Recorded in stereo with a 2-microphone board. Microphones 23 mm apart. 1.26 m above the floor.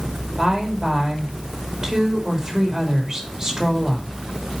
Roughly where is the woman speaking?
Right.